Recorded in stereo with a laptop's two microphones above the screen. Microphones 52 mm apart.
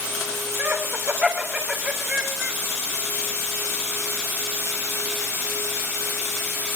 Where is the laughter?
30° right (ahead or behind), 3 m; by 2.6 s 15° right (ahead or behind), 4 m.